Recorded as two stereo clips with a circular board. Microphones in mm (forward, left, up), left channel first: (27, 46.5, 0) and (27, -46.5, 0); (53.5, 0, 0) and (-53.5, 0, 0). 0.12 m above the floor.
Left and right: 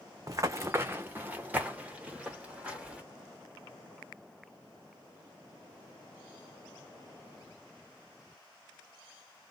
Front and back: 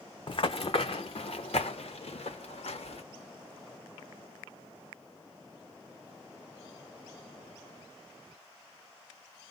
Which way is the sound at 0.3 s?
40° right.